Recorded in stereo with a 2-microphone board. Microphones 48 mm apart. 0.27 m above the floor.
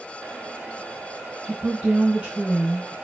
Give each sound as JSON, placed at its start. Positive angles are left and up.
{"t": 1.4, "sound": "a woman speaking", "side_deg": -30, "distance_m": 2.5}